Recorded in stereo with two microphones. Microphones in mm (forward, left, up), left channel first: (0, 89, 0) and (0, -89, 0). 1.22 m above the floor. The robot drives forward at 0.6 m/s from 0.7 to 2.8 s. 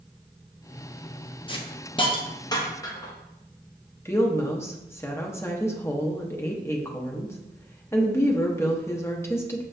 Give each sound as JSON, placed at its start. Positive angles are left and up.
{"t": 1.5, "sound": "a hiss", "side_deg": 30, "distance_m": 0.7}
{"t": 4.0, "sound": "a woman speaking", "side_deg": 15, "distance_m": 0.8}